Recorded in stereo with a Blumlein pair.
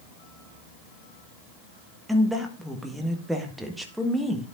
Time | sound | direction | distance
2.1 | a woman speaking | 5° right | 1.4 m